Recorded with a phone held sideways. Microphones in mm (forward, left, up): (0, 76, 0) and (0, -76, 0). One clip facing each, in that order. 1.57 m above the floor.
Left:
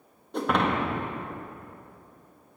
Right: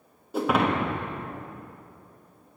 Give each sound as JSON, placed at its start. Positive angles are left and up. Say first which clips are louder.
{"t": 0.3, "sound": "breaking glass", "louder": "right 2 dB", "side_deg": -5, "distance_m": 1.2}